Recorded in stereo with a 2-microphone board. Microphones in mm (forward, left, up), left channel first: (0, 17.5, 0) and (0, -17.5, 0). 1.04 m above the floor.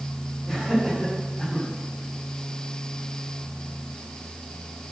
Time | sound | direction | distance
0.5 | laughter | 10° left (ahead or behind) | 7 m